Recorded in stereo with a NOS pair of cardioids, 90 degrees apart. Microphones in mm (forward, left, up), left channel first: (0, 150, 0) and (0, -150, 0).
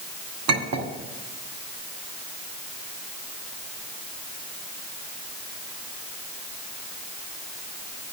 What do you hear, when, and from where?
0.5 s a clink: 65° right, 1.8 m